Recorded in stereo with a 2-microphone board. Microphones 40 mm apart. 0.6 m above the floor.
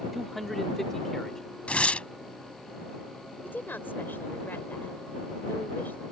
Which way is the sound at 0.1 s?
Centre (ahead or behind).